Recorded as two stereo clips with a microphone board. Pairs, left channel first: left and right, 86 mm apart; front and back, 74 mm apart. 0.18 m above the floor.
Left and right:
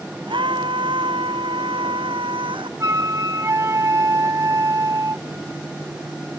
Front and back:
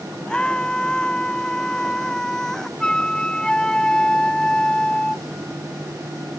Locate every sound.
0.3 s a scream: 80° right; by 2.7 s 85° right
2.8 s a flute: 75° right